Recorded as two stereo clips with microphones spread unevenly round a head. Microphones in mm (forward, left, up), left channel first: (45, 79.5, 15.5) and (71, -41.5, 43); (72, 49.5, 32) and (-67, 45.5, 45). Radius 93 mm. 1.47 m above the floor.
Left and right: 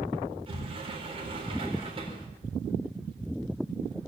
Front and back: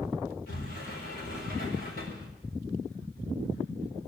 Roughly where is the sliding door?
Ahead right.